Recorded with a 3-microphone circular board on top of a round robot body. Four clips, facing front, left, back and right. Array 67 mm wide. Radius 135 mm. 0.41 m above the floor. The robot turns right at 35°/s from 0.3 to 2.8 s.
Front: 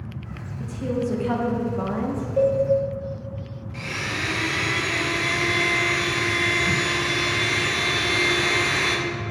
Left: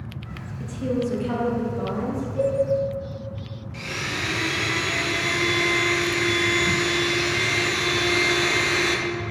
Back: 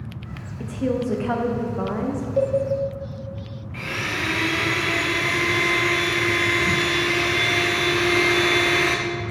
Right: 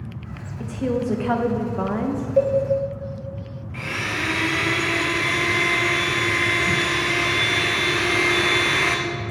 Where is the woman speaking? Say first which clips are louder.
Right 2 dB, back 2 dB; 145° right, 1.0 m; by 2.3 s 85° right, 1.0 m.